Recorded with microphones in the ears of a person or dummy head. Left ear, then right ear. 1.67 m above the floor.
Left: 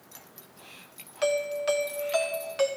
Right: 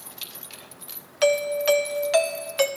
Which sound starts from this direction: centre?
A doorbell, at 1.2 s.